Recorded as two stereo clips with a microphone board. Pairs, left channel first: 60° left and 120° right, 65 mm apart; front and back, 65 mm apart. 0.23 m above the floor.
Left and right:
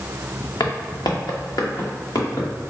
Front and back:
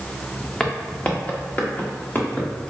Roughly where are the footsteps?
Left.